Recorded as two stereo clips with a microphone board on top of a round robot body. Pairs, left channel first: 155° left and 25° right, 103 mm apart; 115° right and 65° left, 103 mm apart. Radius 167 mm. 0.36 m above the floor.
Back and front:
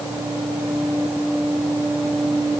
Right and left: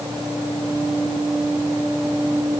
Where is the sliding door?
No sliding door in this recording.